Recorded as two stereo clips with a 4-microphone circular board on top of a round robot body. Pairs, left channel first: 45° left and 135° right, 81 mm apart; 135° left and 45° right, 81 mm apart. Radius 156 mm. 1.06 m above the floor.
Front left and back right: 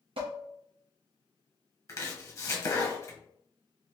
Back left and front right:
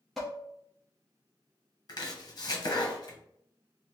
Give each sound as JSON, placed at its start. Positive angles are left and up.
{"t": 0.2, "sound": "dishes clattering", "azimuth_deg": -135, "distance_m": 0.7}
{"t": 1.9, "sound": "chopping", "azimuth_deg": 95, "distance_m": 1.0}